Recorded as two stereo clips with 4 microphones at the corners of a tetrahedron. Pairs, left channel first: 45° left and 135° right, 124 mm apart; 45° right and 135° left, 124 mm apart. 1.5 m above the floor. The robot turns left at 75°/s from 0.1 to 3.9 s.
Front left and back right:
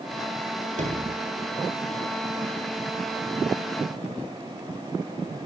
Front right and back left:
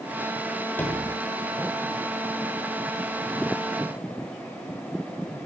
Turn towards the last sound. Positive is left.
turn(degrees=5)